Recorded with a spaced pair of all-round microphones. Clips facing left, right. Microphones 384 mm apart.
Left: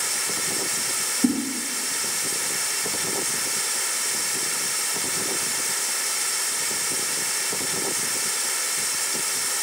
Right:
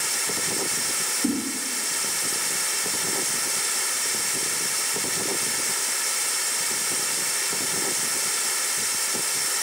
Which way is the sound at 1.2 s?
80° left.